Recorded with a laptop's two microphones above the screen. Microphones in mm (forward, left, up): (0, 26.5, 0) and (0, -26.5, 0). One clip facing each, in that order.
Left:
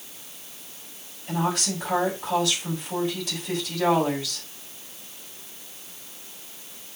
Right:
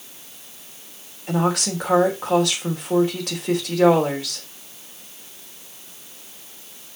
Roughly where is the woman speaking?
Right.